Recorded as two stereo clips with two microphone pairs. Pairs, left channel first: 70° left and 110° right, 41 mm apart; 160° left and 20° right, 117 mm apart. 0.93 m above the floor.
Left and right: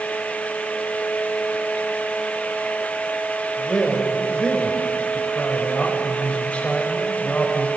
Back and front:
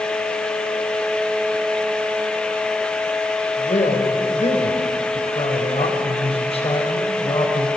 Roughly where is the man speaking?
Behind left.